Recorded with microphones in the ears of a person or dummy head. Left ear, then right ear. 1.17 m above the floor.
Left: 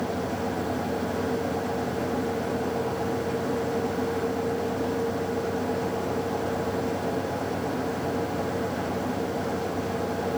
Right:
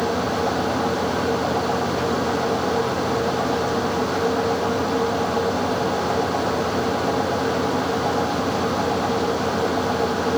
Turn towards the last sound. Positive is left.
No sound to turn to.